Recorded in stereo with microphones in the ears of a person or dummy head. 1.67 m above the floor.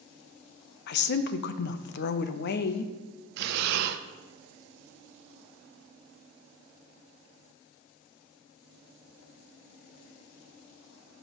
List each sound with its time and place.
0.9 s a woman speaking: 60° left (ahead or behind), 0.7 m
3.4 s breathing: 60° right (ahead or behind), 0.6 m